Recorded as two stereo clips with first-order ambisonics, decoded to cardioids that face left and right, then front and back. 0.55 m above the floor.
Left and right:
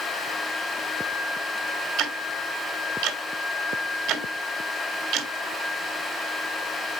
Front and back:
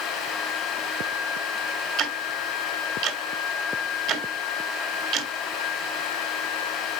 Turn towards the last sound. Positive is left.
turn(degrees=-135)